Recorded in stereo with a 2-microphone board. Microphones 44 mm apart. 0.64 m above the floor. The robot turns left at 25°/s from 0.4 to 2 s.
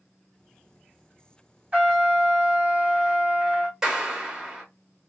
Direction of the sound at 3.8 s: 10° right (ahead or behind).